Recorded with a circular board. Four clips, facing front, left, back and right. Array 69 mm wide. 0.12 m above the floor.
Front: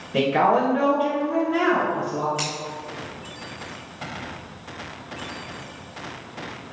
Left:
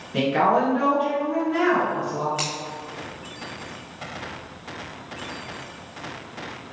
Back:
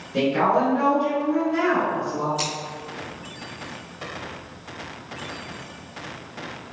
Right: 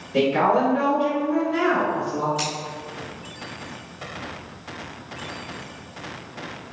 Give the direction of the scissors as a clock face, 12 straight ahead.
10 o'clock.